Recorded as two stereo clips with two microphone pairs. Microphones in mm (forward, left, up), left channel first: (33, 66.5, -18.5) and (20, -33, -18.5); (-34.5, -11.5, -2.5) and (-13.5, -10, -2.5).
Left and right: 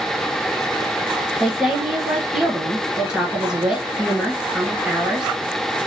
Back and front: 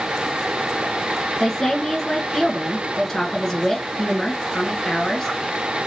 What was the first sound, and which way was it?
A woman speaking, 175° right.